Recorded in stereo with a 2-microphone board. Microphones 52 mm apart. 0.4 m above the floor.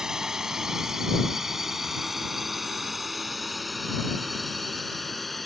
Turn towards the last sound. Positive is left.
turn(degrees=0)  # may be behind; listen again after turning